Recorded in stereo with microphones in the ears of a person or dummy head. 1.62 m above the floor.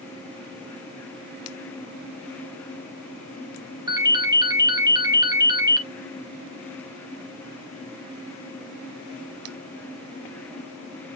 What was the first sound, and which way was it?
A ringtone, 15° right (ahead or behind).